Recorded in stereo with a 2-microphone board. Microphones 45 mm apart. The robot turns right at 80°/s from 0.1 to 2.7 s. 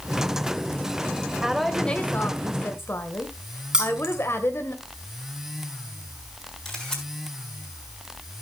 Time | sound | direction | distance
1.4 | a woman speaking | 15° right | 2 m
3.7 | keys jangling | 20° right (ahead or behind) | 3 m
6.7 | a camera shutter | 10° left (ahead or behind) | 5 m